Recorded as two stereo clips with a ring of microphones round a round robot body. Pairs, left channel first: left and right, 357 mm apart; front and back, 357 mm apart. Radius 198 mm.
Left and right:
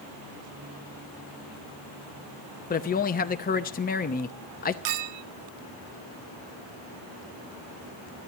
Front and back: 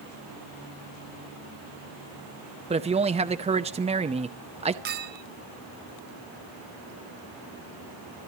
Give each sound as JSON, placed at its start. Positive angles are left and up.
{"t": 2.7, "sound": "a man speaking", "azimuth_deg": 125, "distance_m": 0.7}
{"t": 4.8, "sound": "a clink", "azimuth_deg": -120, "distance_m": 0.7}